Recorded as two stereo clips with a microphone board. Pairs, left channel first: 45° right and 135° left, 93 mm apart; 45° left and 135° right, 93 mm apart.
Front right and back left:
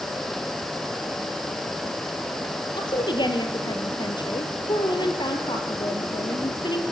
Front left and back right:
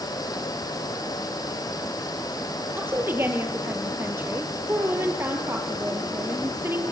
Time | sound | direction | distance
2.8 | a woman speaking | 70° right | 3.5 m